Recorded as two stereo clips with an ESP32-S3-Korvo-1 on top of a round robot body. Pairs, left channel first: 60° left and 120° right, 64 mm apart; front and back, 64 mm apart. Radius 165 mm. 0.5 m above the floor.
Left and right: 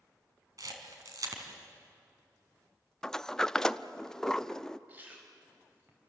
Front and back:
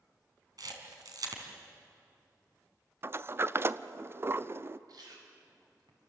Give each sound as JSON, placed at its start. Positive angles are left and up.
{"t": 0.6, "sound": "a camera shutter", "azimuth_deg": -155, "distance_m": 3.0}
{"t": 3.0, "sound": "a sliding door", "azimuth_deg": 140, "distance_m": 0.7}
{"t": 4.9, "sound": "chewing", "azimuth_deg": 180, "distance_m": 5.0}